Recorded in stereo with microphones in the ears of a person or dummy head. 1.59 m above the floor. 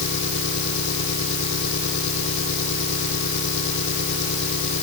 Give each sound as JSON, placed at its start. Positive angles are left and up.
{"t": 0.0, "sound": "an engine running", "side_deg": 70}